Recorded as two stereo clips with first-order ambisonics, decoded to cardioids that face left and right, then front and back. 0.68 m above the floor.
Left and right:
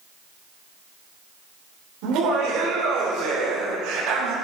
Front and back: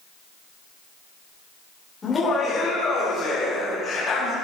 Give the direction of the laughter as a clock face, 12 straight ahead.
2 o'clock.